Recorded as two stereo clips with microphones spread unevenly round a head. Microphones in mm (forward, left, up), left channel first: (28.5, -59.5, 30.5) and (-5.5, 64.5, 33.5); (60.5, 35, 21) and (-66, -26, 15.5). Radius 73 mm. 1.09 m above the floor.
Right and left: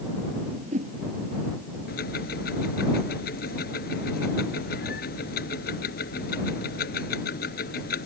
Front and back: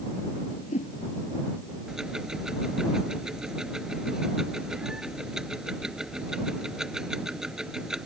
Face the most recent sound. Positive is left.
turn(degrees=-65)